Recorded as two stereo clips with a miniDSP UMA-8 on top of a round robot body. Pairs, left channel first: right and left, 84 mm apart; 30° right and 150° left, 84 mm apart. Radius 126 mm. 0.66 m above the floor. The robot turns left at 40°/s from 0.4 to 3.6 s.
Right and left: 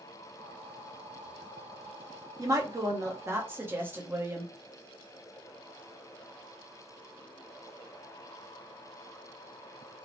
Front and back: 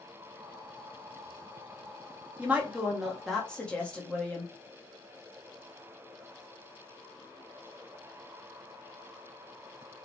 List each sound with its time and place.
2.4 s a woman speaking: 90° left, 1.1 m; by 4.5 s 40° left, 1.1 m